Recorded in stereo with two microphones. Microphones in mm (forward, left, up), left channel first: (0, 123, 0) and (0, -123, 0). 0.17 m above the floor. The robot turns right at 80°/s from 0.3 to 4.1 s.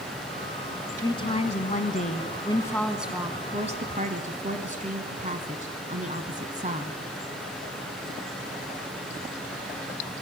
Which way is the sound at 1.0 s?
25° left.